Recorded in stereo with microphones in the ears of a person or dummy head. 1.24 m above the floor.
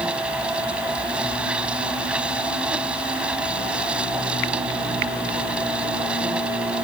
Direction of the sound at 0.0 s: 5° right (ahead or behind).